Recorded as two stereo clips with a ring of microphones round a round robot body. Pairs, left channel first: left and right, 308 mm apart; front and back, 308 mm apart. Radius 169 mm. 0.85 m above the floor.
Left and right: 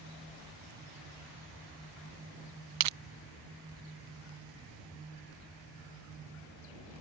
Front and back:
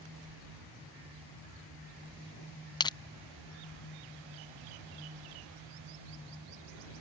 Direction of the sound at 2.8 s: 75° right.